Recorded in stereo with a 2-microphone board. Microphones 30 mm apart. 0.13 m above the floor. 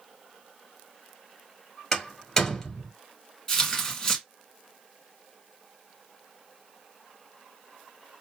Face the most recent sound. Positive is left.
turn(degrees=15)  # may be behind; listen again after turning